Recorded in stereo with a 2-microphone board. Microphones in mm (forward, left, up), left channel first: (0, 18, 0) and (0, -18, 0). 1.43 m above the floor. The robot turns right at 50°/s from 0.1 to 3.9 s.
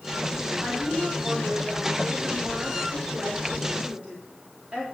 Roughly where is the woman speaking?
Behind.